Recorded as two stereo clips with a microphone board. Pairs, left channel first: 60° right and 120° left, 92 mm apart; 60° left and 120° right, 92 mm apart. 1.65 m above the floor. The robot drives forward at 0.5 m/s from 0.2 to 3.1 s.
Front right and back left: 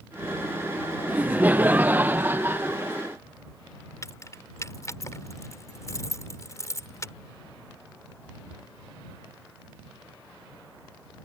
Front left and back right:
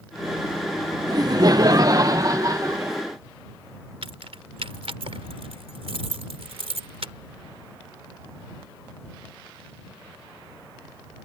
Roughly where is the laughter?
Behind.